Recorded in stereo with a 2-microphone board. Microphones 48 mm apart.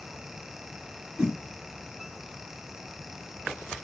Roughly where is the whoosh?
Centre.